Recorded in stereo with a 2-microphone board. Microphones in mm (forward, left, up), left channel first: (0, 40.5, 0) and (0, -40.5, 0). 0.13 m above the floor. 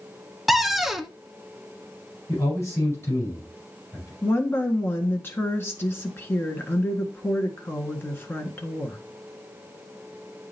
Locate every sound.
0.5 s a cupboard door: centre (ahead or behind), 0.6 m
2.3 s a man speaking: 35° left (ahead or behind), 4.5 m
4.2 s a woman speaking: 25° left (ahead or behind), 1.5 m